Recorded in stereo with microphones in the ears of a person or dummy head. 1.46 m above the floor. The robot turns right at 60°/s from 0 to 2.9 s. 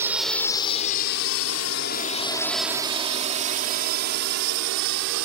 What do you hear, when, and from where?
0.0 s a drone: 20° right (ahead or behind); by 5.3 s 65° right (ahead or behind)